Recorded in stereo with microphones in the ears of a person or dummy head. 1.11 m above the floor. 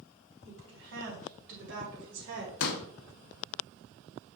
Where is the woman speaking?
65° right (ahead or behind), 3 m; by 2.5 s 60° right (ahead or behind), 1.8 m.